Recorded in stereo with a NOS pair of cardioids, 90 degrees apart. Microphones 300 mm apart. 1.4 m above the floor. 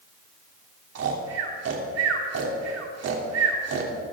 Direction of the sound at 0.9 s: 55° right.